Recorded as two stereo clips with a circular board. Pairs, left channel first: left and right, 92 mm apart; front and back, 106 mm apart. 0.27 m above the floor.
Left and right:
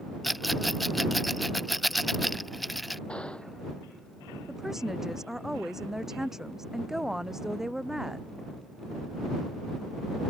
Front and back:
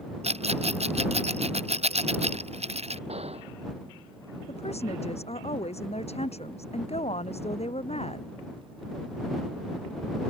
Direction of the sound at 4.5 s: 5° right.